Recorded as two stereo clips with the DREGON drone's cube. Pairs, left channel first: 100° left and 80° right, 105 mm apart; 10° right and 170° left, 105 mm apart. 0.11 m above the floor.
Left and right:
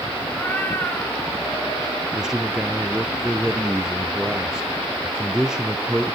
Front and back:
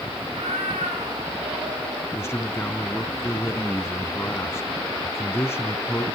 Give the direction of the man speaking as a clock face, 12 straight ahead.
12 o'clock.